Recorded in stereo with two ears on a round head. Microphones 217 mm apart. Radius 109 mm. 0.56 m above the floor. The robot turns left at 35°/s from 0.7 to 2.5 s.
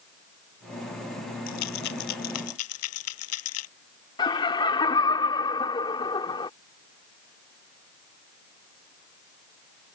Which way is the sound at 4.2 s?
20° left (ahead or behind).